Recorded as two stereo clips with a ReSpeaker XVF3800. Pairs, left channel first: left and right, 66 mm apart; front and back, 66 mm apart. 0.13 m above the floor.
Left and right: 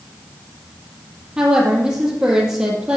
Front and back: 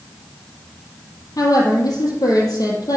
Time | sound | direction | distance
1.4 | a woman speaking | 10° right | 4.5 m